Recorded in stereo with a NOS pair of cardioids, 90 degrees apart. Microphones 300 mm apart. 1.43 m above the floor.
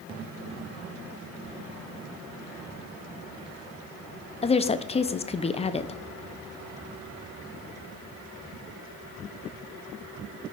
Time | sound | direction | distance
4.4 | a woman speaking | 20° left | 0.5 m